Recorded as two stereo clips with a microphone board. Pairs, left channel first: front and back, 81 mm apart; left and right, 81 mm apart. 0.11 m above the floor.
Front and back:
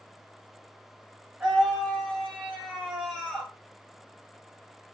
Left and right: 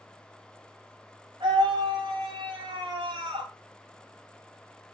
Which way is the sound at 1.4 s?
105° right.